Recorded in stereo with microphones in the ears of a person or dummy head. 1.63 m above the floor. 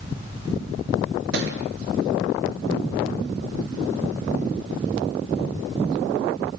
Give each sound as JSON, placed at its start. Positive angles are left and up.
{"t": 1.3, "sound": "a thud", "side_deg": -75, "distance_m": 6.0}